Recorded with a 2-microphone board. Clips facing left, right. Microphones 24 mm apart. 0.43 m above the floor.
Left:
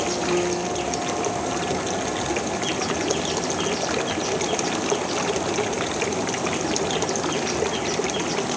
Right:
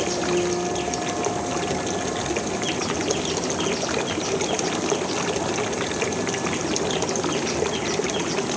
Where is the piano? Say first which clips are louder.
Right 1 dB; 20° left (ahead or behind), 4.5 m.